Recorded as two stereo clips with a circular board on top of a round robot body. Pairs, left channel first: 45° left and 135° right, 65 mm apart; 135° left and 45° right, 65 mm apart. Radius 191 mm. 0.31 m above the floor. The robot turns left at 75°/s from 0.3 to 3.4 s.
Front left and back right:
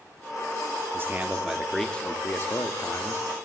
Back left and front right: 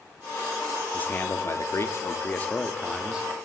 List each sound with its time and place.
0.9 s a man speaking: 170° right, 1.0 m; by 3.3 s 15° left, 1.0 m